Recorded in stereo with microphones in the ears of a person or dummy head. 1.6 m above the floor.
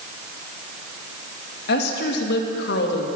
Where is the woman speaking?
70° left (ahead or behind), 2 m.